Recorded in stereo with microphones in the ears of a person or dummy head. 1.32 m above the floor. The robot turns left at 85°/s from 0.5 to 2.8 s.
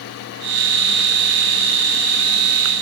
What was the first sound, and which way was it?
Only background noise.